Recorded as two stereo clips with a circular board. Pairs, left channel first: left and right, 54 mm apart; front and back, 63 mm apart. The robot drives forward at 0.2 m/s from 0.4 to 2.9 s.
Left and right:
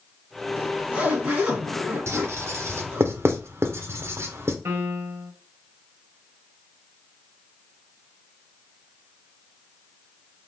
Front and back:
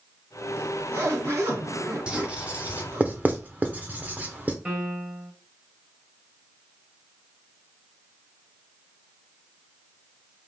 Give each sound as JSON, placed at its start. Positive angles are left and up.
{"t": 0.6, "sound": "a zipper", "azimuth_deg": -145, "distance_m": 2.0}
{"t": 2.1, "sound": "writing", "azimuth_deg": -110, "distance_m": 0.8}
{"t": 4.7, "sound": "a piano", "azimuth_deg": -115, "distance_m": 1.7}